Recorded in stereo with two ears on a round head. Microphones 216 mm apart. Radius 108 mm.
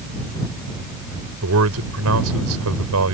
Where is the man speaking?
70° right (ahead or behind).